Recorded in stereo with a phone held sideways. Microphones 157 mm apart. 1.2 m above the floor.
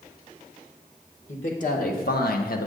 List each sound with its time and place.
1.3 s a man speaking: 50° left (ahead or behind), 1.4 m; by 2.7 s 65° left (ahead or behind), 0.9 m